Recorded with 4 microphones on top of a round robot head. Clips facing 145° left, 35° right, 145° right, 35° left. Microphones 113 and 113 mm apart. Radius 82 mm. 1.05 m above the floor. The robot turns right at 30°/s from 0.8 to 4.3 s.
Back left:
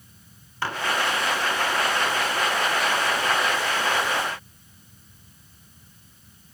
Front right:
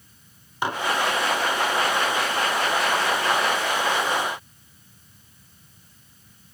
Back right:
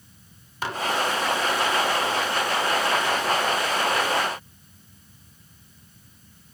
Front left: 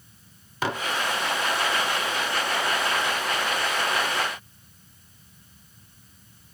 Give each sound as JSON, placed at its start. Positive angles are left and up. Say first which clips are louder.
{"t": 0.6, "sound": "dishes clattering", "louder": "front right 3 dB, front left 2 dB", "azimuth_deg": 35, "distance_m": 1.2}